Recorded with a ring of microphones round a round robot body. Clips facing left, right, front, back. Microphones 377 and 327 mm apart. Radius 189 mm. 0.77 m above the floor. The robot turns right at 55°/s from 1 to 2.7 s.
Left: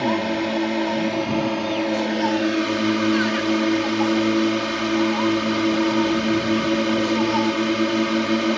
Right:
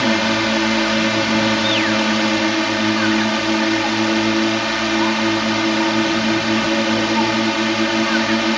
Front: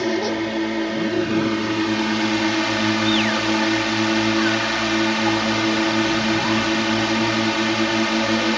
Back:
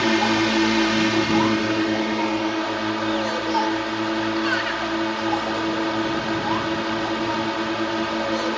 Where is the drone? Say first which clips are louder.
Right 3 dB, back 1 dB; 120° right; by 8.6 s 25° right.